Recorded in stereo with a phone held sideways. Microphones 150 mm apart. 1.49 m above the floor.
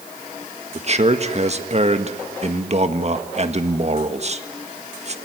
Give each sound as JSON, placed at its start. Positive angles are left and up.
{"t": 0.8, "sound": "a man speaking", "side_deg": -45, "distance_m": 1.6}